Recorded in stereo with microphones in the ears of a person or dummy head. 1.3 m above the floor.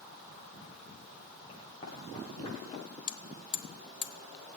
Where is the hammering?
35° left (ahead or behind), 0.8 m.